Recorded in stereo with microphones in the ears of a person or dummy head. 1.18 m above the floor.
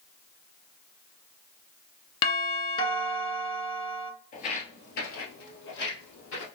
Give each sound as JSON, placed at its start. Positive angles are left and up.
{"t": 2.2, "sound": "a doorbell", "side_deg": 25, "distance_m": 1.0}
{"t": 4.3, "sound": "footsteps", "side_deg": 35, "distance_m": 1.5}